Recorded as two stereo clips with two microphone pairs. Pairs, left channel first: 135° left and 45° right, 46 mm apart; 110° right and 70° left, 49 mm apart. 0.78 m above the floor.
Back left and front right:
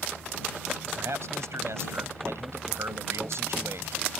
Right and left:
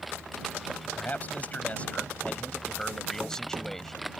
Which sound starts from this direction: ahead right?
A man speaking, at 0.9 s.